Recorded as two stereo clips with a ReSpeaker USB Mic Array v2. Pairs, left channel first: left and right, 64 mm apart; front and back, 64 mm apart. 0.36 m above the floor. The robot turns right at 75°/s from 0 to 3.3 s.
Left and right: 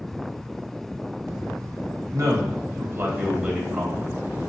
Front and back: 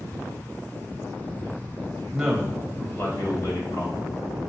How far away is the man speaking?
About 1.8 m.